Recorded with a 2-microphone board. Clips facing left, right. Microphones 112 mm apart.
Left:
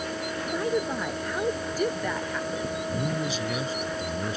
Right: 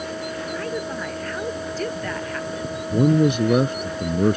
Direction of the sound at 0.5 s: 15° left (ahead or behind).